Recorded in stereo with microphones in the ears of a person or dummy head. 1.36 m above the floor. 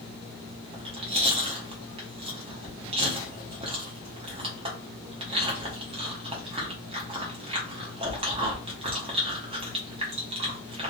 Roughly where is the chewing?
Right.